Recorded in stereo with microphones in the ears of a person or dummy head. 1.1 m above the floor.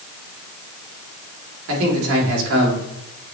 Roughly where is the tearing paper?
No tearing paper in this recording.